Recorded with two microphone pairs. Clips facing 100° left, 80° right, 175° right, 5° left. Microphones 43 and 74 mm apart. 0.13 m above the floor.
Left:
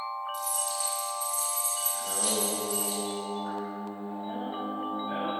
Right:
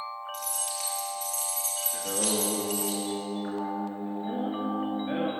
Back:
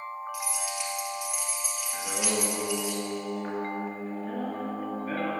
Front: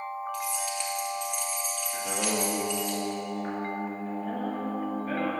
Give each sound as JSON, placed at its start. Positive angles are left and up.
{"t": 0.3, "sound": "keys jangling", "azimuth_deg": -90, "distance_m": 1.8}
{"t": 1.9, "sound": "singing", "azimuth_deg": -85, "distance_m": 2.0}